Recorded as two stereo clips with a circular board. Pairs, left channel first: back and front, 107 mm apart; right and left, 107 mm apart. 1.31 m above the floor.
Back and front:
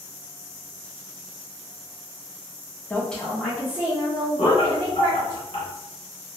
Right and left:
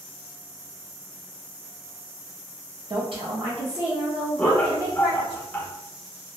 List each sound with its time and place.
2.9 s a woman speaking: 115° left, 0.6 m; by 5.4 s 60° left, 1.9 m
4.4 s laughter: 165° right, 1.1 m